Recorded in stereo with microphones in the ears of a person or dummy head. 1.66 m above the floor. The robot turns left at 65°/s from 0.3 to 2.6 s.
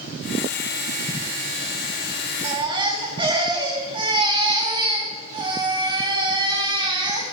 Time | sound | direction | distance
2.4 | a baby crying | 35° right (ahead or behind) | 1.8 m